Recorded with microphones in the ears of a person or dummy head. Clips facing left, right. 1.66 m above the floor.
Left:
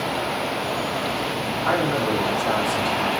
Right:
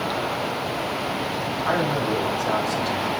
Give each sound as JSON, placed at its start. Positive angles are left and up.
{"t": 1.6, "sound": "a man speaking", "side_deg": 50, "distance_m": 5.0}